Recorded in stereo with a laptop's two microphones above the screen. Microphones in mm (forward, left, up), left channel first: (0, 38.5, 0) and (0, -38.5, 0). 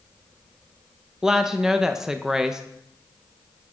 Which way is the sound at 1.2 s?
5° right (ahead or behind).